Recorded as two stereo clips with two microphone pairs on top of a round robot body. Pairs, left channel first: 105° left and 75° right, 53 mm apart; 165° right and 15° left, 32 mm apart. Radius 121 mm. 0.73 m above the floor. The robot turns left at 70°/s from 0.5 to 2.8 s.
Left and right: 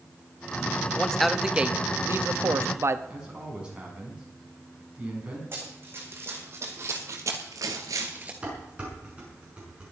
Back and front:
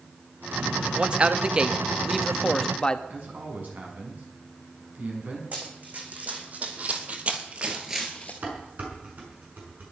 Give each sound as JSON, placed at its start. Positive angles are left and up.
{"t": 1.0, "sound": "a man speaking", "azimuth_deg": 40, "distance_m": 1.2}
{"t": 3.1, "sound": "a man speaking", "azimuth_deg": 0, "distance_m": 6.0}
{"t": 5.5, "sound": "running footsteps", "azimuth_deg": -25, "distance_m": 4.0}
{"t": 8.4, "sound": "dishes clattering", "azimuth_deg": -5, "distance_m": 6.0}